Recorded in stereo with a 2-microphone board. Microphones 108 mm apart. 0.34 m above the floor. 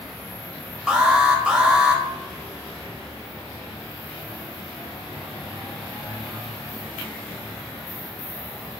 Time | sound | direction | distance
0.9 | an alarm | 10° right (ahead or behind) | 1.1 m